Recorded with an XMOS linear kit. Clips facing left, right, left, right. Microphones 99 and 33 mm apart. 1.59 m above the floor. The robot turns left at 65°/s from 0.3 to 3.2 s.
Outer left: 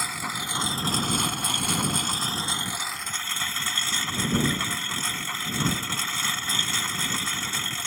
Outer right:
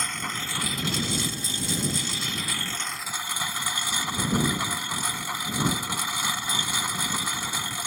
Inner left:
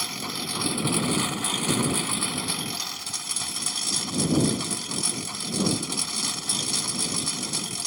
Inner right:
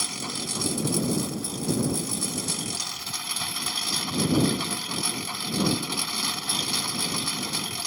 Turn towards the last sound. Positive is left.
turn(degrees=-15)